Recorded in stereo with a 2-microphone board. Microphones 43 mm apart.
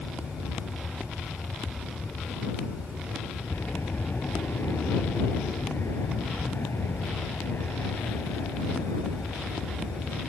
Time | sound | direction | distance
0.0 | an aircraft | 75° left (ahead or behind) | ?